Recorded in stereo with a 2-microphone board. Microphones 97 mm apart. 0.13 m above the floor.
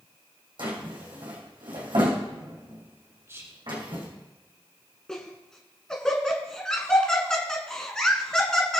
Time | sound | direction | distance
0.6 | a drawer | 55° right (ahead or behind) | 3.5 m
3.3 | whispering | 25° right (ahead or behind) | 1.2 m
5.1 | laughter | 5° left (ahead or behind) | 1.2 m